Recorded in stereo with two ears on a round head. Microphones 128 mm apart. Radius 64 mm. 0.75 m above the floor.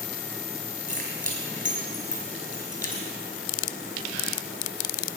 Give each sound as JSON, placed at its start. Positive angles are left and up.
{"t": 0.9, "sound": "keys jangling", "side_deg": 20, "distance_m": 4.5}